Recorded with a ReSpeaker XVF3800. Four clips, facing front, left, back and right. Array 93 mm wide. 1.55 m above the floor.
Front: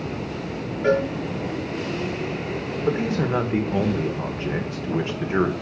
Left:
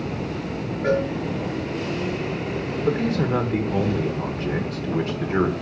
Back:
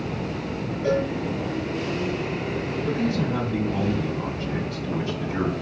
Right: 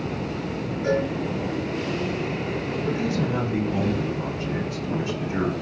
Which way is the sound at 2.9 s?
35° left.